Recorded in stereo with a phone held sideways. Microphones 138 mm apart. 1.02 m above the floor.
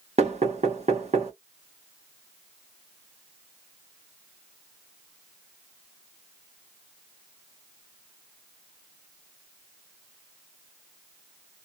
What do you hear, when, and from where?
0.2 s knocking: 50° right (ahead or behind), 1.5 m